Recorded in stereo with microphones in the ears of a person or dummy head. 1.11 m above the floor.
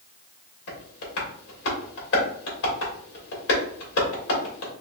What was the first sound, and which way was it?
Tapping, 65° left (ahead or behind).